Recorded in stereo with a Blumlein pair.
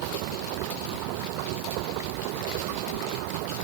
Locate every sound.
0.0 s a machine running: 45° right